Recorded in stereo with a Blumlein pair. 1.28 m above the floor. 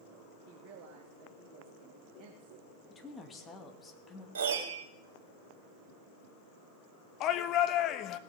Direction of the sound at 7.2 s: 35° left.